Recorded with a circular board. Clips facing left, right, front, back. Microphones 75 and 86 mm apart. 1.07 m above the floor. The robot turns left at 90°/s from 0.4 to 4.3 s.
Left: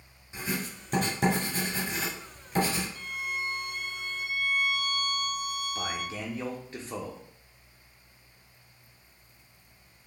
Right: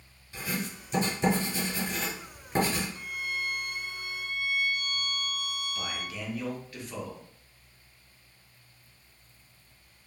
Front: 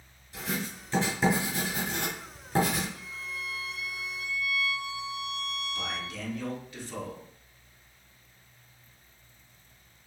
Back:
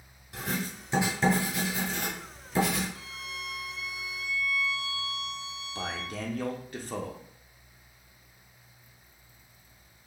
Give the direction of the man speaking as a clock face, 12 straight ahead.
7 o'clock.